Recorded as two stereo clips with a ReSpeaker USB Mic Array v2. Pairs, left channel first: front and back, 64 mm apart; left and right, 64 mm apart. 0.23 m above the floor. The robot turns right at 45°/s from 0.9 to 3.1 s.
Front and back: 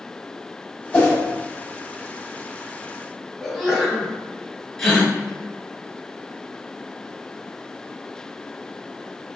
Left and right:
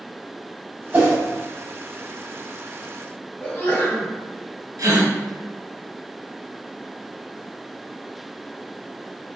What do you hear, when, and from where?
0.9 s a whoosh: 50° right, 0.9 m; by 1.2 s 40° right, 0.9 m
3.4 s a sneeze: 100° left, 1.2 m
4.8 s a gasp: 85° right, 0.8 m